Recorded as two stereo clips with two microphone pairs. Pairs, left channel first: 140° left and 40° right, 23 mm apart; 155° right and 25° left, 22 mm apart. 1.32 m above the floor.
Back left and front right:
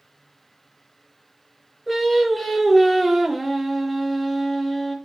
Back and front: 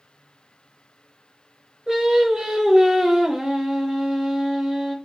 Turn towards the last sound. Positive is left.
turn(degrees=50)